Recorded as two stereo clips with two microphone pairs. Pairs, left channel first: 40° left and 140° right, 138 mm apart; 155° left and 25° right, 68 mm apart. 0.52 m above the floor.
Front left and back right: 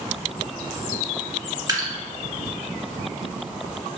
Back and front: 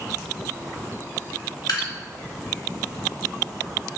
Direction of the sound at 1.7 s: 155° left.